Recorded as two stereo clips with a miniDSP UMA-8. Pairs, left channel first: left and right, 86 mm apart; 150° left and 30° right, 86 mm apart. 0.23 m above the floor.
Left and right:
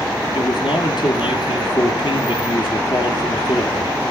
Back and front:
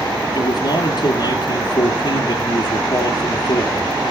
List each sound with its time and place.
0.3 s a man speaking: 120° left, 3.5 m